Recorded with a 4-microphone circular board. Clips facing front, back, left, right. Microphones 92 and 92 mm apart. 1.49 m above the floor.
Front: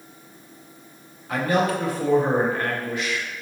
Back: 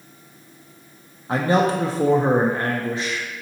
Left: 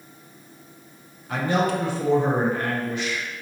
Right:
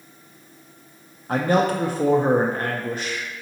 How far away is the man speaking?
About 0.5 m.